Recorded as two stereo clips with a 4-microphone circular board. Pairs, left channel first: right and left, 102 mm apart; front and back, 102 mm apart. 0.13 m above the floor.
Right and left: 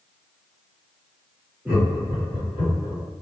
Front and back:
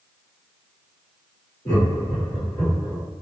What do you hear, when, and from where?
1.6 s laughter: 25° left, 1.8 m; by 3.0 s 60° left, 1.9 m